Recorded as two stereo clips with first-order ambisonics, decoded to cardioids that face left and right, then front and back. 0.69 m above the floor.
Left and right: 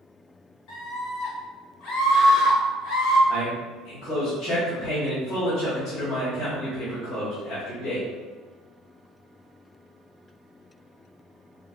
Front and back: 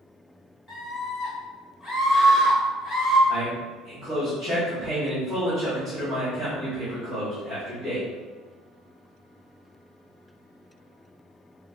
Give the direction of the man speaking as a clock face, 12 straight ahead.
9 o'clock.